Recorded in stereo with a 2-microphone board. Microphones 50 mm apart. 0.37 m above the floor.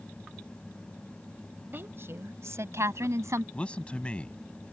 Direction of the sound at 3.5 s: 25° left (ahead or behind).